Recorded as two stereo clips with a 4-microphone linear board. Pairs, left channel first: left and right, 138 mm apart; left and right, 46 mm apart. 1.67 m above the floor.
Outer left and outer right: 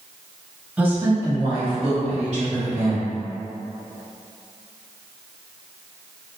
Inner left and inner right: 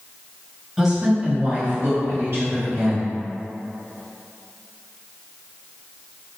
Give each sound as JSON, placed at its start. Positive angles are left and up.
{"t": 0.8, "sound": "a woman speaking", "side_deg": -10, "distance_m": 1.1}